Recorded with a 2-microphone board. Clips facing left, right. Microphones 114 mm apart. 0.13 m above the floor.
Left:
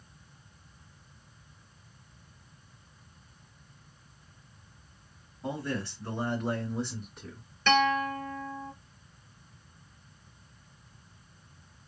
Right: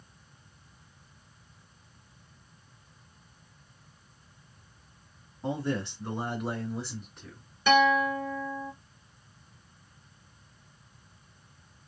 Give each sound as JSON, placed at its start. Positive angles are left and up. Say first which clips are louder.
{"t": 5.4, "sound": "a man speaking", "louder": "right 3 dB", "side_deg": -25, "distance_m": 1.6}
{"t": 7.7, "sound": "a guitar", "louder": "right 3 dB", "side_deg": -10, "distance_m": 0.7}